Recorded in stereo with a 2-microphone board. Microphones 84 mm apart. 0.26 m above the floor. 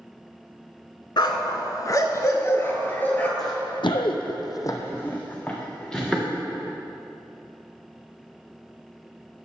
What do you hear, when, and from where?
1.2 s a dog barking: 65° left (ahead or behind), 0.9 m; by 3.3 s 20° left (ahead or behind), 1.4 m
3.4 s running footsteps: 50° left (ahead or behind), 1.2 m; by 6.2 s 5° left (ahead or behind), 2.5 m